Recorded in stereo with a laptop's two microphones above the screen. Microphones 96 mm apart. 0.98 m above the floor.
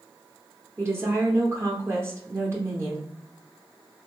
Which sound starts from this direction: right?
A woman speaking, at 0.8 s.